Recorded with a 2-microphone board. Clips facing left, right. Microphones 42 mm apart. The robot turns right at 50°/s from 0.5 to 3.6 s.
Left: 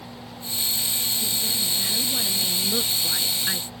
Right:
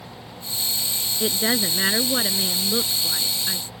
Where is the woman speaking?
95° right; by 3.7 s 25° left.